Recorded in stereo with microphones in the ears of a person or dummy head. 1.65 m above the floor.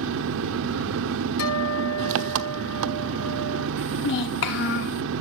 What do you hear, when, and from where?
0.0 s an engine running: 70° right (ahead or behind), 1.0 m
1.4 s a guitar: 70° left (ahead or behind), 3 m
3.8 s a child speaking: 55° left (ahead or behind), 1.5 m